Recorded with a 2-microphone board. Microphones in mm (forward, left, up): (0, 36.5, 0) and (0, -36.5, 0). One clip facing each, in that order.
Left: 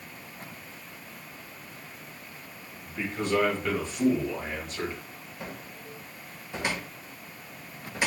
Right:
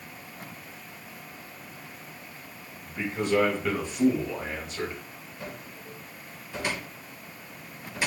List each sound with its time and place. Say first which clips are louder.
2.8 s a man speaking: right 1 dB; 10° right (ahead or behind), 3 m; by 5.0 s centre (ahead or behind), 1.7 m
5.4 s a cupboard door: even; 20° left (ahead or behind), 1.5 m